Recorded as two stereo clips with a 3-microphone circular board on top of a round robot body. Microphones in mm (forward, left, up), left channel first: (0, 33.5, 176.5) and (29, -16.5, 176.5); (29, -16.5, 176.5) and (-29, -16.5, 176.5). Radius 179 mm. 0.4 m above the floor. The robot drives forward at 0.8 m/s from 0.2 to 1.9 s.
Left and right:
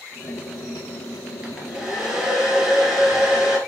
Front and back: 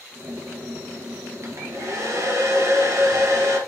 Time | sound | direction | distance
1.4 | a hair dryer | 135° right | 2 m